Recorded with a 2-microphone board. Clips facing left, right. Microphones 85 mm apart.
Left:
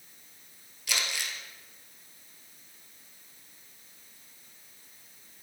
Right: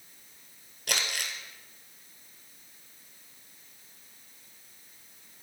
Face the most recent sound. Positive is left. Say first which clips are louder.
# right 1 dB
turn(degrees=-55)  # may be behind; listen again after turning